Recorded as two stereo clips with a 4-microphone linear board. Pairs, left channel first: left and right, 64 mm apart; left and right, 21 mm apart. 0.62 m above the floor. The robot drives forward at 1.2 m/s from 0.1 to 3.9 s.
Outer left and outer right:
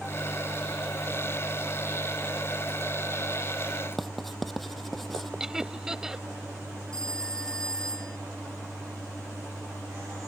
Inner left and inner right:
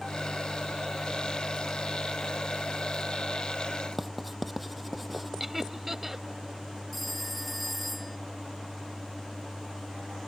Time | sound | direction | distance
4.0 | writing | centre (ahead or behind) | ?
5.4 | laughter | 10° right (ahead or behind) | ?
6.9 | a phone ringing | 10° left (ahead or behind) | ?